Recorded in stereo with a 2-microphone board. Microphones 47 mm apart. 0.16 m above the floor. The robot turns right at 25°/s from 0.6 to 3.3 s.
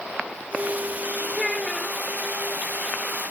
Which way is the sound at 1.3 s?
5° left (ahead or behind).